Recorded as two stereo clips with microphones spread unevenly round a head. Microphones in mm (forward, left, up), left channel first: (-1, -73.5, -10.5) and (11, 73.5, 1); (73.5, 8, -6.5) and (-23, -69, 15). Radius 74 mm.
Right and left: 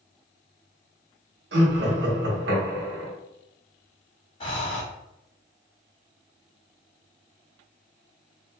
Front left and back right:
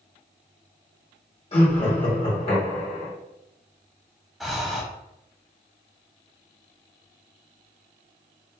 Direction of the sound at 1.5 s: 85° left.